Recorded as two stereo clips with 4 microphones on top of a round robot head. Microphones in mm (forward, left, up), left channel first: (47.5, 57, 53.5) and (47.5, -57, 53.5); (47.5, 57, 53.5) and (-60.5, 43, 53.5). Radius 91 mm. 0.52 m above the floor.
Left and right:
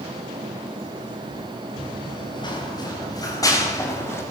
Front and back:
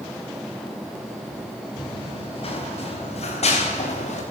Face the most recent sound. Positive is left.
turn(degrees=20)